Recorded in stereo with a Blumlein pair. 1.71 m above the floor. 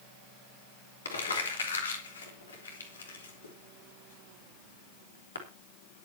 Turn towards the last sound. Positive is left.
turn(degrees=70)